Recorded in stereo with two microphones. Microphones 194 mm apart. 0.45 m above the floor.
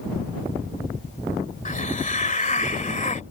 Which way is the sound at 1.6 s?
40° left (ahead or behind).